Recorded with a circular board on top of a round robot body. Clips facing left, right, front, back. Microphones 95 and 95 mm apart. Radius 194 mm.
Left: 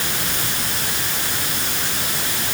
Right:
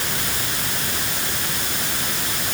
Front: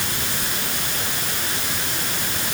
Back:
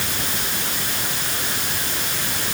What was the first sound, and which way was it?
Only background noise.